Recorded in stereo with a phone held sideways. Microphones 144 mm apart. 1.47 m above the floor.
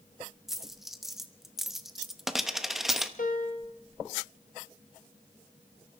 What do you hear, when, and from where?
0.5 s a dropped coin: centre (ahead or behind), 0.8 m
3.2 s a piano: 65° left (ahead or behind), 1.8 m